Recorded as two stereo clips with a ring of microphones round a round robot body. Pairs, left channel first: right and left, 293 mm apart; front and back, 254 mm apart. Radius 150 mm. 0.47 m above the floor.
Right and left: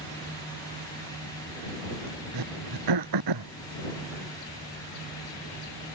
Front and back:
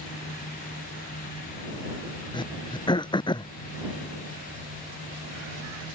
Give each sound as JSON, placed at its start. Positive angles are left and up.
{"t": 2.3, "sound": "throat clearing", "azimuth_deg": 75}